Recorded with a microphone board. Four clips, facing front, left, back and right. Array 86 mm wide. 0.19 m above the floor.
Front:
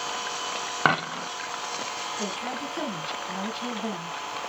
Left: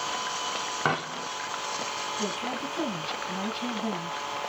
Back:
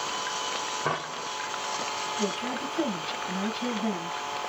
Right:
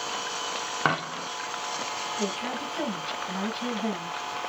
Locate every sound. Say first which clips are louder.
0.8 s a dropped coin: right 2 dB, front 9 dB; 15° right, 0.8 m
2.2 s a woman speaking: right 1 dB, back 3 dB; 80° right, 1.3 m